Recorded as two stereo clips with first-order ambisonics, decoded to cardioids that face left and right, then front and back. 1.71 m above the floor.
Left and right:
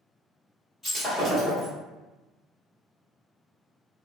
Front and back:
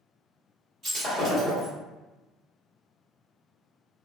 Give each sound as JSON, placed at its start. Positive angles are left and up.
{"t": 0.8, "sound": "breaking glass", "azimuth_deg": 165, "distance_m": 1.7}